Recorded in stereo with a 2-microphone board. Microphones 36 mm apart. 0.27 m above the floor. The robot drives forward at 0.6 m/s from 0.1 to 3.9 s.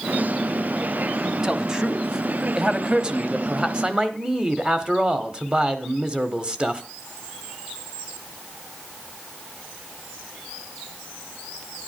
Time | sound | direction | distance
1.4 | a man speaking | 15° right (ahead or behind) | 1.6 m